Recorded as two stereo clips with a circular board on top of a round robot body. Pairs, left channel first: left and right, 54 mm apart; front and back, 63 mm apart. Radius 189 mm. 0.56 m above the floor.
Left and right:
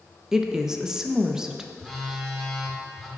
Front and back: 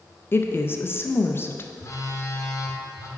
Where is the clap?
I don't hear a clap.